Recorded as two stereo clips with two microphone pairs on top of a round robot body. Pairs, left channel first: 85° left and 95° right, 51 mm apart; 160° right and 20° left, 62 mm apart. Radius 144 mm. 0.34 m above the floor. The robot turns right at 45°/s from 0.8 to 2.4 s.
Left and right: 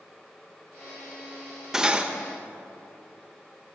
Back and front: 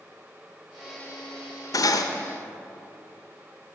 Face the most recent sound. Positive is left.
turn(degrees=-145)